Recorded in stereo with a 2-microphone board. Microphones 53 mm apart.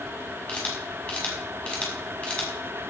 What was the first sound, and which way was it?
A camera shutter, 20° left (ahead or behind).